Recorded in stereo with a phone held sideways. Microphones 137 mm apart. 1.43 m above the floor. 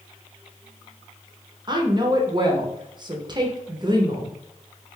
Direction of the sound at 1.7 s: 30° right (ahead or behind).